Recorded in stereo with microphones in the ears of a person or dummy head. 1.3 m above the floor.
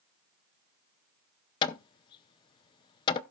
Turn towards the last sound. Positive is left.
turn(degrees=25)  # may be behind; listen again after turning